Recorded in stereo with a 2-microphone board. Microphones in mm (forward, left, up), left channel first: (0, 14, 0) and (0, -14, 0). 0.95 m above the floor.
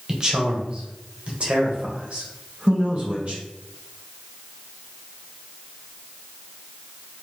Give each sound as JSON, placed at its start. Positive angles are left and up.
{"t": 0.1, "sound": "a man speaking", "side_deg": -20, "distance_m": 0.9}